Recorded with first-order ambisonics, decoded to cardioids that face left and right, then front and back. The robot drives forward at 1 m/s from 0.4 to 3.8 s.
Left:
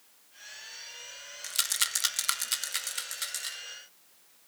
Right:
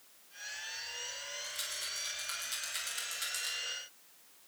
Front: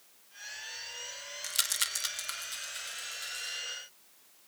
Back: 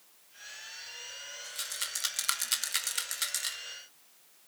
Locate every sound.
1.4 s a rattle: 40° left, 0.7 m; by 3.6 s 165° left, 1.6 m